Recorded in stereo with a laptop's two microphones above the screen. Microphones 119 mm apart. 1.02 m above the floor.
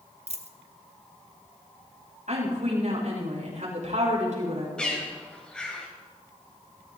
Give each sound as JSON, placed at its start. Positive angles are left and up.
{"t": 0.3, "sound": "a dropped coin", "side_deg": -65, "distance_m": 0.8}
{"t": 2.3, "sound": "a woman speaking", "side_deg": -80, "distance_m": 6.0}
{"t": 4.8, "sound": "a bird", "side_deg": 5, "distance_m": 1.9}